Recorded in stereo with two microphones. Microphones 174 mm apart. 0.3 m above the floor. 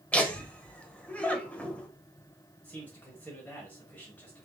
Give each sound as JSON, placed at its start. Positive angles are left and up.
{"t": 0.1, "sound": "laughter", "side_deg": 10, "distance_m": 0.9}
{"t": 2.6, "sound": "a man speaking", "side_deg": 10, "distance_m": 1.1}